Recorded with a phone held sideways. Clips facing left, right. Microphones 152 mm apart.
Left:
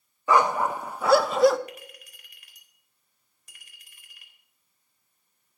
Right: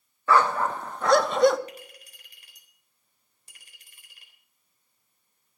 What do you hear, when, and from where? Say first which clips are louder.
0.3 s a dog barking: even; 15° left (ahead or behind), 0.6 m; by 1.6 s centre (ahead or behind), 0.7 m
1.7 s a clink: left 1 dB; 30° right (ahead or behind), 3.5 m